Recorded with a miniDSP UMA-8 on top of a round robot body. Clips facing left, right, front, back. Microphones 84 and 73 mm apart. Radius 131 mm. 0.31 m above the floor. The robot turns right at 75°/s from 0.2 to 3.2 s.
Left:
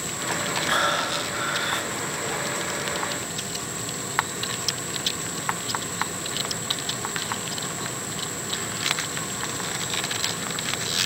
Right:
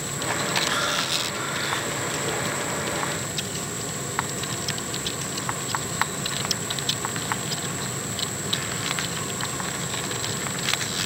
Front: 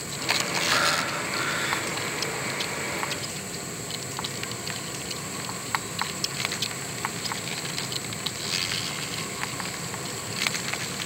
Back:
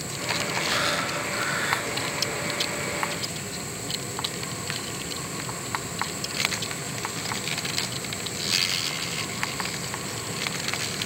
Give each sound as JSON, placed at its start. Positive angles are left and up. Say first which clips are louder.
{"t": 0.7, "sound": "breathing", "louder": "left 3 dB, front 3 dB", "azimuth_deg": 45, "distance_m": 3.5}